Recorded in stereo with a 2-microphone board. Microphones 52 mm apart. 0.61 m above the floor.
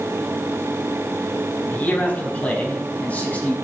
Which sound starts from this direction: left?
A man speaking, at 1.7 s.